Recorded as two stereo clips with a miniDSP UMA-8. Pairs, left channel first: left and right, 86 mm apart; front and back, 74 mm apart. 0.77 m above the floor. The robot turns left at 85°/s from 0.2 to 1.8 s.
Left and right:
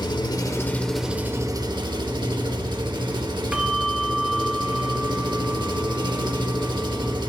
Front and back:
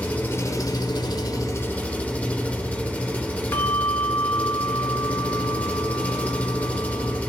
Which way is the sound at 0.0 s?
65° left.